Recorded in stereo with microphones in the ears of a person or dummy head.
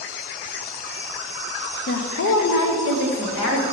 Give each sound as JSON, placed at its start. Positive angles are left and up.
{"t": 1.9, "sound": "a woman speaking", "side_deg": 50, "distance_m": 0.7}